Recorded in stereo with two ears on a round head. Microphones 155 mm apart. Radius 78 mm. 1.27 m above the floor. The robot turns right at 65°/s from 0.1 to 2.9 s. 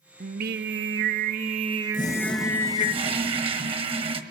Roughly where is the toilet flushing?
Behind left.